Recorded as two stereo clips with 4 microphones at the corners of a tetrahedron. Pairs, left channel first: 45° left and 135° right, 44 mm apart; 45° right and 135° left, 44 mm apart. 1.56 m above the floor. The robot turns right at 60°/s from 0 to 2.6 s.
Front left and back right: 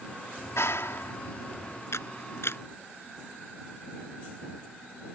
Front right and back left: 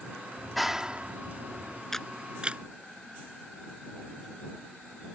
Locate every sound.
0.4 s a clap: 30° left; by 1.8 s 120° left
1.9 s a camera shutter: 30° left; by 2.6 s 75° left